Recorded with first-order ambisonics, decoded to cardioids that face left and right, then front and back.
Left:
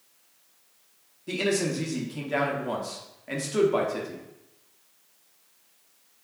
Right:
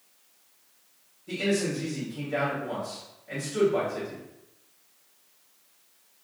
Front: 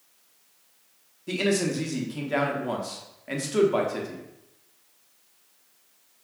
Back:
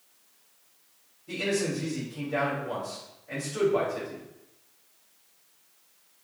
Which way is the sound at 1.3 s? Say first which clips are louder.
Left 1 dB, front 3 dB; 35° left.